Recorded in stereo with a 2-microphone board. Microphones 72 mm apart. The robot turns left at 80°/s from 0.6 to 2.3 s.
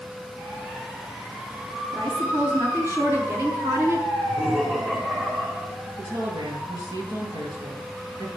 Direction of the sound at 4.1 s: 20° right (ahead or behind).